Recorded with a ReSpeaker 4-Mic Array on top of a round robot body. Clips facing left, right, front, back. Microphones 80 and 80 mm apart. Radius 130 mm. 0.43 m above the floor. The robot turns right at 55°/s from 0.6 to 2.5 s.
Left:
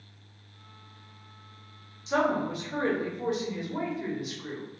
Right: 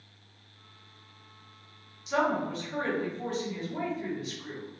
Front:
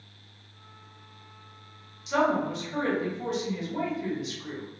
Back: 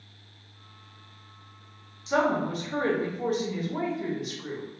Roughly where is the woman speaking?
Behind left.